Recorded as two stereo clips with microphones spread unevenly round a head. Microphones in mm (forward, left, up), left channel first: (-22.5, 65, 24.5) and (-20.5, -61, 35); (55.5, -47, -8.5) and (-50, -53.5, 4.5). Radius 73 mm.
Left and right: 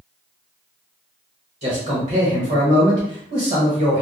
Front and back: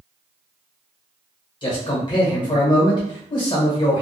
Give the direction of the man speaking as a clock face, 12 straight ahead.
1 o'clock.